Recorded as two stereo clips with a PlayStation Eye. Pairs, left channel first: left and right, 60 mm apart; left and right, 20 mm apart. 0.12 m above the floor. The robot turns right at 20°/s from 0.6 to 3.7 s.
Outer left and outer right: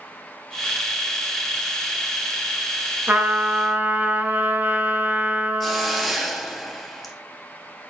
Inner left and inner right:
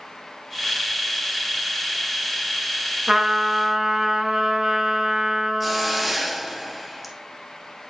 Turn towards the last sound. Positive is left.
turn(degrees=0)  # may be behind; listen again after turning